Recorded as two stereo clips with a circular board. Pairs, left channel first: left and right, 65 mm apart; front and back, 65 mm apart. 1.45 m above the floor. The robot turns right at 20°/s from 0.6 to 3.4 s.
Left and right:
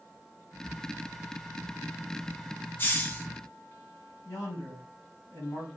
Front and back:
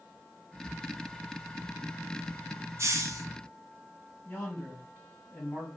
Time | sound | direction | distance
2.8 | a hiss | 140° left | 0.5 m
4.2 | a man speaking | 65° left | 1.7 m